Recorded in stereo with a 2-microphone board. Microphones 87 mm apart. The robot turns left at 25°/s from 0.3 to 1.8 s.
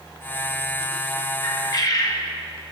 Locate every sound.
1.4 s a bird: 45° left (ahead or behind), 0.6 m; by 2.2 s 40° left (ahead or behind), 0.6 m